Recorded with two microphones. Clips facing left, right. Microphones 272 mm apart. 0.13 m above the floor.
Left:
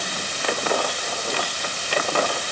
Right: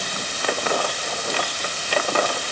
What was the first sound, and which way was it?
Only background noise.